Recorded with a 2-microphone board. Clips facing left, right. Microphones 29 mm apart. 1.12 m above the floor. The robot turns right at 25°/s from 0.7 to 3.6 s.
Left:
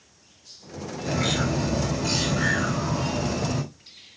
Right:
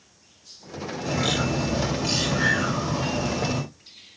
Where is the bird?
165° right, 2.5 m; by 3.6 s 100° right, 2.5 m.